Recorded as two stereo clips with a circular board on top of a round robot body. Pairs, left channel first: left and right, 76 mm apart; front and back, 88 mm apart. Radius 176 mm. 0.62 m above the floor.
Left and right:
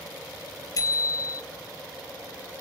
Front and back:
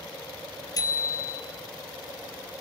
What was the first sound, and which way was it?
A bicycle bell, 45° left.